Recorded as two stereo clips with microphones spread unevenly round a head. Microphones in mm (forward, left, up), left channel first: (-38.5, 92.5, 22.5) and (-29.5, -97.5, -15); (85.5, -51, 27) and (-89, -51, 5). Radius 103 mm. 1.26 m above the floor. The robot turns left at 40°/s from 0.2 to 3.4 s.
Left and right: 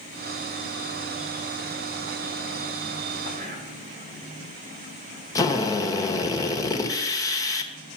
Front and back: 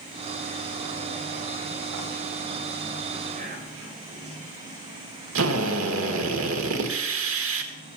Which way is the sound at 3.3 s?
130° right.